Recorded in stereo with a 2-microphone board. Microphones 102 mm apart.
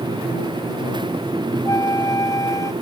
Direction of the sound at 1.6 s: 35° left (ahead or behind).